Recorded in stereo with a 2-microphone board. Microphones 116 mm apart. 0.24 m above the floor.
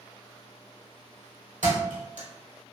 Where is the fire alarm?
I don't hear a fire alarm.